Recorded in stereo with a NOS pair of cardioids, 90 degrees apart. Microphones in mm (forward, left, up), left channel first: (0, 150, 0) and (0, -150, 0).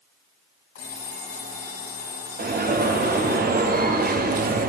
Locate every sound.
0.8 s an alarm clock: 45° left, 3 m
2.4 s an alarm: 30° right, 0.8 m